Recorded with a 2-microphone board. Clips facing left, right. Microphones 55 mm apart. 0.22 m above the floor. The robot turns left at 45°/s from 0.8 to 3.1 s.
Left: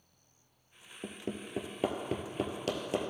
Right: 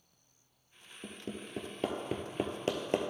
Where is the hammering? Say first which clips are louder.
Left 3 dB; 45° left (ahead or behind), 1.0 m; by 3.1 s 50° right (ahead or behind), 1.0 m.